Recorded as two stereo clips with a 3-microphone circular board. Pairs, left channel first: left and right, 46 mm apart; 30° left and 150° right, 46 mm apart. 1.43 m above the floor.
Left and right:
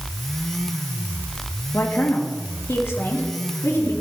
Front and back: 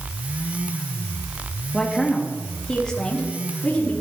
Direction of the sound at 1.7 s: 115° left.